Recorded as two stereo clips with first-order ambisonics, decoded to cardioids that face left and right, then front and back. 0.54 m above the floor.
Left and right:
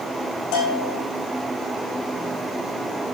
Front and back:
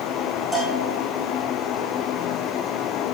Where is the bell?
90° left, 6.5 m.